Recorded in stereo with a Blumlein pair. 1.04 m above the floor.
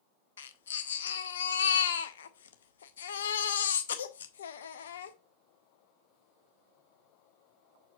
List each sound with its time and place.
0.4 s a baby crying: 65° left, 0.7 m